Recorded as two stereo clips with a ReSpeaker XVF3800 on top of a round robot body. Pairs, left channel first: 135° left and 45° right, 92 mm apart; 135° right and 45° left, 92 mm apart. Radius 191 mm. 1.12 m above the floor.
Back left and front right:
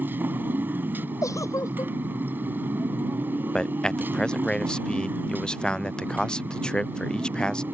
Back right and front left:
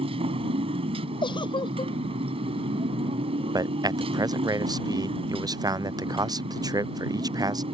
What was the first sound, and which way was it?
A motorcycle, 25° left.